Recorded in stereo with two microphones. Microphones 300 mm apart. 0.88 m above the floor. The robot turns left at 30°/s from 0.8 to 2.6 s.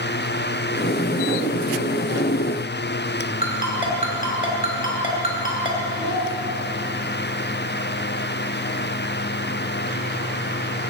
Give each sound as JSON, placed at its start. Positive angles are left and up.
{"t": 3.4, "sound": "a ringtone", "side_deg": 25, "distance_m": 3.0}
{"t": 6.0, "sound": "a child speaking", "side_deg": -70, "distance_m": 2.5}